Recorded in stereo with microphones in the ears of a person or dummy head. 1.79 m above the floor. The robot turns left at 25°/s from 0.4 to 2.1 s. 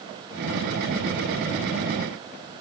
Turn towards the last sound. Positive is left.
No sound to turn to.